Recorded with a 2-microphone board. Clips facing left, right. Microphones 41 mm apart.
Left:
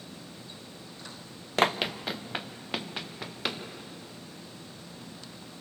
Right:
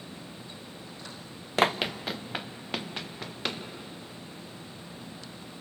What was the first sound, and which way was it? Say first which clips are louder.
Running footsteps: even; 5° right (ahead or behind).